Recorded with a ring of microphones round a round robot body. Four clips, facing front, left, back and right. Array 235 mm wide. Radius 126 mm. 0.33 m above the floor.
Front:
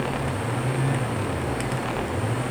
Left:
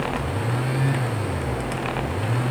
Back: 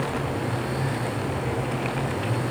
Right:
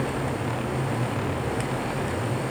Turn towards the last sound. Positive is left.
No sound to turn to.